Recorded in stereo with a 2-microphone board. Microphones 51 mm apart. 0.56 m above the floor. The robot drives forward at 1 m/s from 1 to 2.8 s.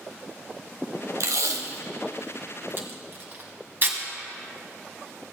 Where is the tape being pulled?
80° right, 1.3 m; by 4.0 s 40° right (ahead or behind), 2.0 m.